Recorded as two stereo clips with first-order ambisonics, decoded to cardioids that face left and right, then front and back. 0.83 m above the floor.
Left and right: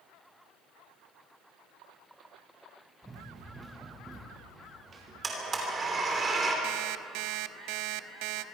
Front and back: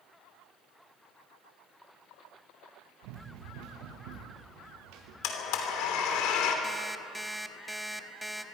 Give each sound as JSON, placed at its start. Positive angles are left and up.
{"t": 3.0, "sound": "running footsteps", "azimuth_deg": -170, "distance_m": 4.5}
{"t": 5.2, "sound": "a blender", "azimuth_deg": -20, "distance_m": 3.0}
{"t": 6.6, "sound": "an alarm clock", "azimuth_deg": -90, "distance_m": 0.8}